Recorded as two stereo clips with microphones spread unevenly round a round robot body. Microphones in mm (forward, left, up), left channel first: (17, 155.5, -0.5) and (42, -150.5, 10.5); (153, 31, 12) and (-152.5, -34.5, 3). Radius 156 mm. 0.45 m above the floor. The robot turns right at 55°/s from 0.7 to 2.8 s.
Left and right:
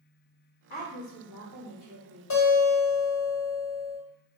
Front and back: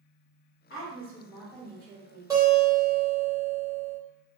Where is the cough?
No cough in this recording.